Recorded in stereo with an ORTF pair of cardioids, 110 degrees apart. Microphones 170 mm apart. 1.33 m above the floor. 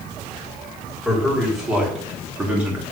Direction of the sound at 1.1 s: Straight ahead.